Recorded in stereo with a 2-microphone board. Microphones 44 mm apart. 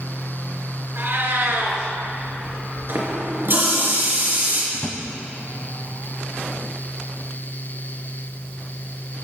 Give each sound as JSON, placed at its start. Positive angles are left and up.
{"t": 0.9, "sound": "a cat meowing", "side_deg": -55, "distance_m": 2.0}
{"t": 2.9, "sound": "a running tap", "side_deg": -55, "distance_m": 3.0}
{"t": 4.7, "sound": "a drawer", "side_deg": 35, "distance_m": 1.0}